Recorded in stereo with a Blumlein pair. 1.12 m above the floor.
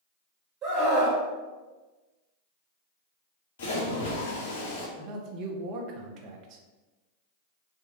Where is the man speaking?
35° right, 0.6 m.